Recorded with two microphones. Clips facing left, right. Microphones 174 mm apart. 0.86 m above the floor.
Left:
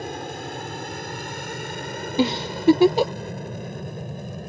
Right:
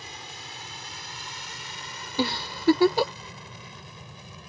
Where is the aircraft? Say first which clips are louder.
Left 14 dB; 55° left (ahead or behind); by 4.5 s 50° left (ahead or behind).